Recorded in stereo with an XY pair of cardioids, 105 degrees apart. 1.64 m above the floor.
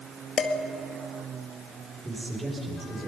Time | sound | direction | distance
0.4 | dishes clattering | 45° left | 2.0 m
2.0 | a man speaking | 20° right | 6.5 m